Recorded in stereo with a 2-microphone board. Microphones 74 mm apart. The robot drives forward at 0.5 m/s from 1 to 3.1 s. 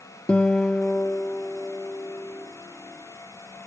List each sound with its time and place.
0.3 s a guitar: 15° left (ahead or behind), 0.6 m; by 2.5 s 10° left (ahead or behind), 1.3 m